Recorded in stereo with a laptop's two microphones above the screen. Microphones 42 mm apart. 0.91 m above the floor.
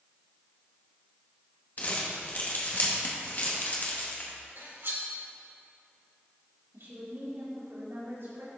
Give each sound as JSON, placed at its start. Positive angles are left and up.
{"t": 1.8, "sound": "crumpling", "side_deg": 40, "distance_m": 1.6}
{"t": 4.6, "sound": "cutlery clinking", "side_deg": -60, "distance_m": 1.5}
{"t": 6.7, "sound": "a woman speaking", "side_deg": -70, "distance_m": 2.5}